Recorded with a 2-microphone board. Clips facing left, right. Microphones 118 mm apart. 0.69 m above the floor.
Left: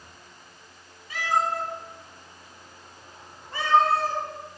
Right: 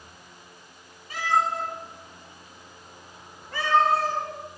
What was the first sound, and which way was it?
A cat meowing, 40° right (ahead or behind).